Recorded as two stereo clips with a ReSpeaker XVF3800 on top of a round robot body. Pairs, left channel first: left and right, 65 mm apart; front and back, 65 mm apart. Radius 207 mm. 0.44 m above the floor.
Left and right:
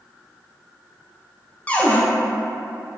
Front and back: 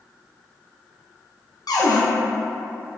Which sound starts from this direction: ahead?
A cupboard door, at 1.7 s.